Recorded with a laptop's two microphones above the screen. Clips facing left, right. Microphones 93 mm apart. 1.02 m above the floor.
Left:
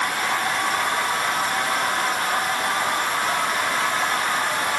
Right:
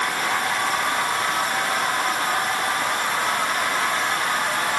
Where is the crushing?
I don't hear crushing.